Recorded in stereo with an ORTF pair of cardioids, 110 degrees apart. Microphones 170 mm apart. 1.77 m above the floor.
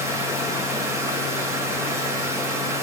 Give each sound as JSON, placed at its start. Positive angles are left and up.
{"t": 0.0, "sound": "a machine running", "azimuth_deg": -15, "distance_m": 0.9}